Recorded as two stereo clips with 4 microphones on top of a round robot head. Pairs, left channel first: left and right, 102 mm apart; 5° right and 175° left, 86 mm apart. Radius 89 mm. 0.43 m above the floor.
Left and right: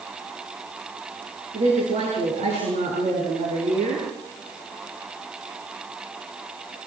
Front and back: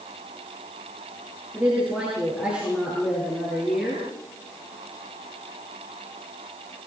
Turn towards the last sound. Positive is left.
turn(degrees=-100)